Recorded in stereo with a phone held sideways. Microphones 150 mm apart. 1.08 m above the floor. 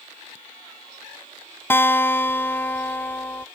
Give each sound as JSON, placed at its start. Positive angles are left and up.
{"t": 1.7, "sound": "a guitar", "side_deg": 15}